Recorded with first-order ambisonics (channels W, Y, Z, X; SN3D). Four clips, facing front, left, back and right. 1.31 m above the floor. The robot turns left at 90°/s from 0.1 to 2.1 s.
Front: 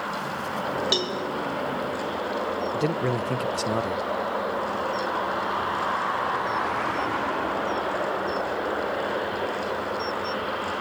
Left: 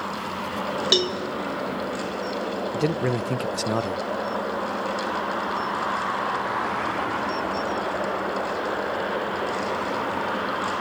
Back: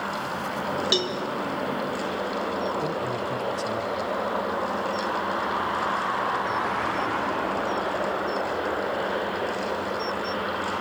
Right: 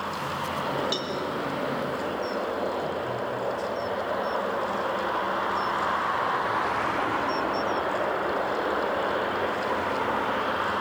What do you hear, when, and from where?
0.9 s a cowbell: 95° left, 1.3 m; by 1.2 s 70° left, 1.3 m
2.7 s a man speaking: 65° left, 0.7 m